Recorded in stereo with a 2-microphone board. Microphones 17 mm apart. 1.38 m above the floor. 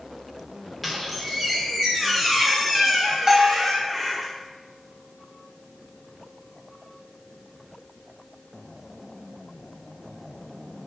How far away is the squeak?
About 1.0 m.